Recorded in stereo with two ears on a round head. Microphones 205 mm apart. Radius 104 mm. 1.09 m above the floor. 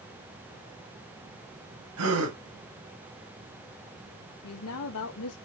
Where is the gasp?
80° right, 2.5 m.